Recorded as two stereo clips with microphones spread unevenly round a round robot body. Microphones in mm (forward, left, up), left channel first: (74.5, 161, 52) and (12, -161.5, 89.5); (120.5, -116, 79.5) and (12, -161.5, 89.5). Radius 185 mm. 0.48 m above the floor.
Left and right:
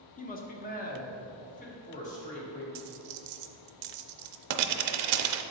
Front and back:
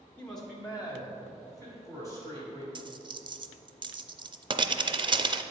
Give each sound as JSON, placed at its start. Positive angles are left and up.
{"t": 0.2, "sound": "a man speaking", "azimuth_deg": 80, "distance_m": 0.9}
{"t": 2.8, "sound": "a dropped coin", "azimuth_deg": -100, "distance_m": 0.5}